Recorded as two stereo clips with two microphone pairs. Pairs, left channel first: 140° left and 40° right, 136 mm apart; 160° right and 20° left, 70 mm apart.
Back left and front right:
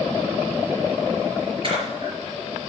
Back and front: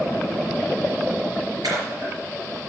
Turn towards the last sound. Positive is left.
turn(degrees=5)